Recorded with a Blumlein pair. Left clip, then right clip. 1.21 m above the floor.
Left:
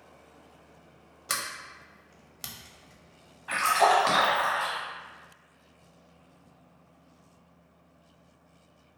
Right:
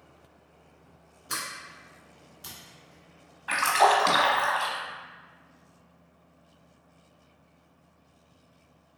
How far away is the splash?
About 1.1 m.